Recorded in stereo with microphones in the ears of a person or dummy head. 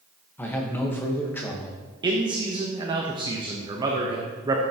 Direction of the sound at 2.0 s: 20° right (ahead or behind).